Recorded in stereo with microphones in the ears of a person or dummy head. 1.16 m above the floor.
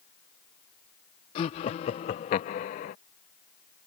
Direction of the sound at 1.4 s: 45° left (ahead or behind).